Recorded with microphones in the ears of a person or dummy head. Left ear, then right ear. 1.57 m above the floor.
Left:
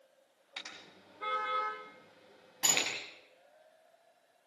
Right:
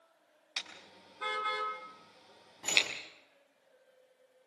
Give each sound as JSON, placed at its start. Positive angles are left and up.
{"t": 0.6, "sound": "a car horn", "side_deg": -45, "distance_m": 6.0}
{"t": 2.6, "sound": "a sliding door", "side_deg": 75, "distance_m": 9.5}